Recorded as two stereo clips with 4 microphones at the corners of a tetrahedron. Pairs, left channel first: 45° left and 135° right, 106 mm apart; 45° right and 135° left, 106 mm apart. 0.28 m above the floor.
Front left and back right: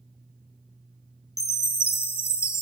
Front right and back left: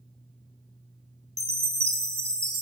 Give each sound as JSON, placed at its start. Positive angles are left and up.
{"t": 1.4, "sound": "a chime", "azimuth_deg": 95, "distance_m": 0.9}